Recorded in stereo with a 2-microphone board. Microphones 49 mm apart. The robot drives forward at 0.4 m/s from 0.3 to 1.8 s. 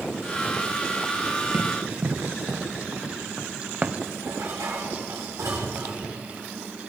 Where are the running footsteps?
60° right (ahead or behind), 3 m; by 4.1 s 25° right (ahead or behind), 1.5 m.